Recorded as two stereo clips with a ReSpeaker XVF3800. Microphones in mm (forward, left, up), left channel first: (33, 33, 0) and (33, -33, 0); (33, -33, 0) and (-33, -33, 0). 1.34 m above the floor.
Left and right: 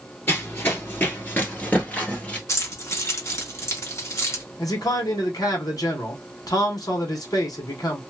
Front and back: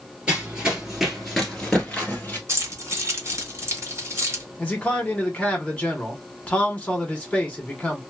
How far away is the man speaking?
About 1.4 m.